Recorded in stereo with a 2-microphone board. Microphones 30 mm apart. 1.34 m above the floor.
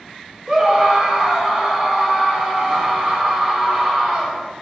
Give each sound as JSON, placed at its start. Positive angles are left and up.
{"t": 0.5, "sound": "a scream", "side_deg": -15, "distance_m": 5.5}